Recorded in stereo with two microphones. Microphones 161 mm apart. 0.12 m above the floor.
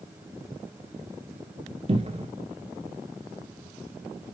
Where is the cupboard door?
40° right (ahead or behind), 0.8 m.